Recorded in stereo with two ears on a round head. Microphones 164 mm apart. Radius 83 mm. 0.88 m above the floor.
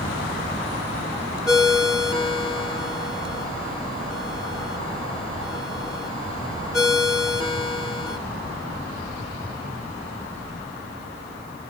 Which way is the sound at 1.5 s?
20° left (ahead or behind).